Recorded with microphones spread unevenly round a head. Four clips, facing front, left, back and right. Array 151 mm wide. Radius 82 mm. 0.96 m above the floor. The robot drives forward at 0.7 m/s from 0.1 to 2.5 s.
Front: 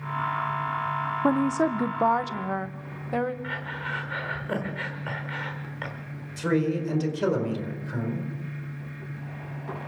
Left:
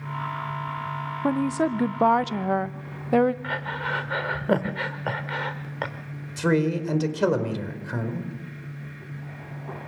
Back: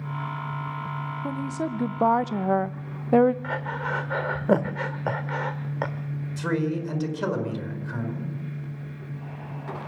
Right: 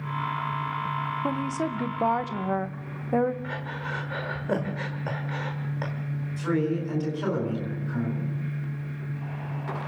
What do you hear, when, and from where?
1.2 s a woman speaking: 15° left, 0.7 m; by 3.3 s 160° left, 0.6 m
3.4 s breathing: 155° left, 1.2 m
6.4 s a man speaking: 85° left, 4.5 m